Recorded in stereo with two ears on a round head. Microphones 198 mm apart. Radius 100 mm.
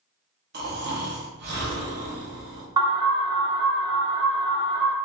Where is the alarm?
25° right (ahead or behind), 1.0 m.